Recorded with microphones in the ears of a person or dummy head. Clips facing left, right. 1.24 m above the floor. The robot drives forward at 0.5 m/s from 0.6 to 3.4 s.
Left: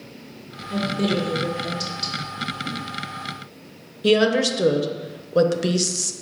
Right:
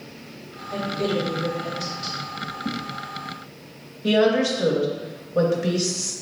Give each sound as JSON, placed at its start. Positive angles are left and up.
{"t": 0.7, "sound": "a woman speaking", "side_deg": 40, "distance_m": 1.6}
{"t": 2.6, "sound": "a whoosh", "side_deg": -65, "distance_m": 0.7}
{"t": 4.0, "sound": "a woman speaking", "side_deg": 50, "distance_m": 0.5}